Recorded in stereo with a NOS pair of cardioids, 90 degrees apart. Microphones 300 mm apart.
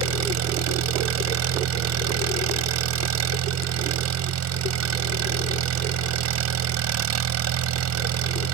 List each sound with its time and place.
0.0 s an engine running: 60° right